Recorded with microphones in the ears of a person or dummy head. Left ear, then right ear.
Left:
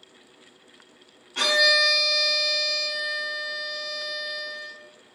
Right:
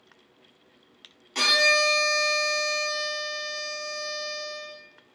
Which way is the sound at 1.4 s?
60° right (ahead or behind).